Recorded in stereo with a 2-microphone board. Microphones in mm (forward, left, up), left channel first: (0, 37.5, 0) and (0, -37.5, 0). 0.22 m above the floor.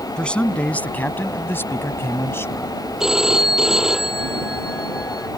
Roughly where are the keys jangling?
I don't hear keys jangling.